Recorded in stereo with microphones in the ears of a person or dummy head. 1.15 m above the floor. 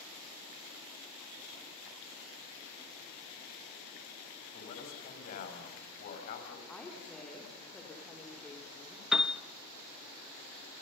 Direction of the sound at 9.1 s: 10° right (ahead or behind).